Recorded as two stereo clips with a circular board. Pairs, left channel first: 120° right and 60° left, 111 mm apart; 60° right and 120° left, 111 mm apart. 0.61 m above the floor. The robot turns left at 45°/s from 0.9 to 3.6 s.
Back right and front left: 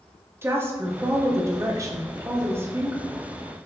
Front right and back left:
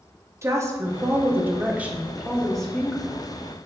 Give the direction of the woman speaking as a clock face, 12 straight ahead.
9 o'clock.